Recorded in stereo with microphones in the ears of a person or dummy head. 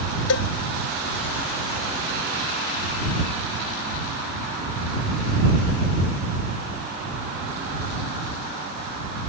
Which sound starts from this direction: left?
A cowbell, at 0.3 s.